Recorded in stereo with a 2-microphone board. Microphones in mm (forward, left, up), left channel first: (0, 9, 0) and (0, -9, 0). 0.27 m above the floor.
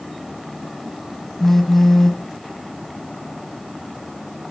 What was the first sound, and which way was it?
A phone buzzing, 15° left (ahead or behind).